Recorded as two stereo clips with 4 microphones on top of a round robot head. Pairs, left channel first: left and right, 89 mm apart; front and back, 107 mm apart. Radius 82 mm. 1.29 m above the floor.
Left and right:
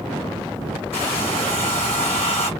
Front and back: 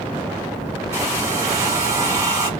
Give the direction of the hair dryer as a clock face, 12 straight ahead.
8 o'clock.